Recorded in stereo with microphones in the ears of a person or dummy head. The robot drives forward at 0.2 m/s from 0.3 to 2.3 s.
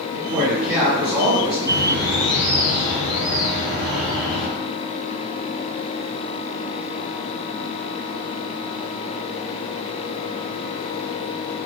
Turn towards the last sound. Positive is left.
turn(degrees=-55)  # may be behind; listen again after turning